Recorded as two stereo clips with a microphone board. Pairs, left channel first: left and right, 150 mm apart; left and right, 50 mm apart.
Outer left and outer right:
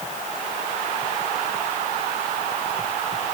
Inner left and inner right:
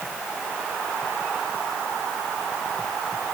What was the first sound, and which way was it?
Only background noise.